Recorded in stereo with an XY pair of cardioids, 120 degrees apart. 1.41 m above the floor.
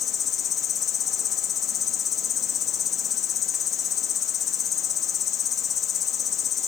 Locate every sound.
0.0 s an insect: 45° left, 3 m